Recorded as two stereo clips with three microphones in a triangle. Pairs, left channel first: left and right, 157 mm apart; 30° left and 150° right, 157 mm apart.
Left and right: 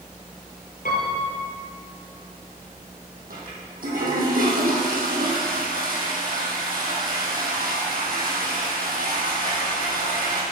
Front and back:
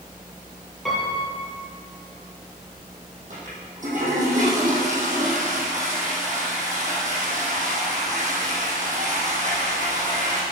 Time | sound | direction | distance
0.8 | a piano | 120° left | 3 m
3.3 | a toilet flushing | 115° right | 4 m